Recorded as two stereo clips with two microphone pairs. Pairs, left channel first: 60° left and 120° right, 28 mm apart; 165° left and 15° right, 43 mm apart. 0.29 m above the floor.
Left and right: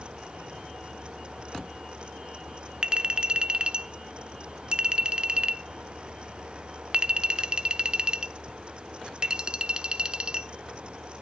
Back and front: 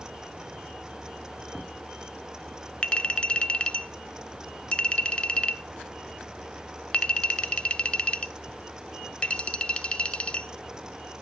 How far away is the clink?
About 0.5 m.